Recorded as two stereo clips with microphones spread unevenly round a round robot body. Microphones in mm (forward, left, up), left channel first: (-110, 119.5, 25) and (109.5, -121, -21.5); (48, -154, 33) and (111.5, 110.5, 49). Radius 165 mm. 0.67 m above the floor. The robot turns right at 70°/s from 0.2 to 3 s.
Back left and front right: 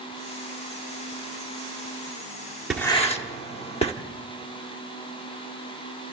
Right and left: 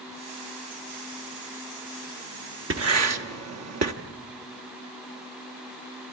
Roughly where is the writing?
Ahead left.